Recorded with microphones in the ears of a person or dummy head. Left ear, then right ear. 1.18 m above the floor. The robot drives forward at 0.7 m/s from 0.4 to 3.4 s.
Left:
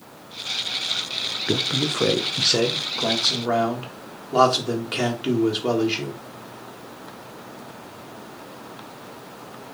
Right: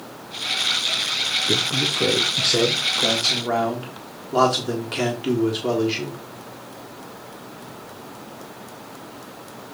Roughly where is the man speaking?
Left.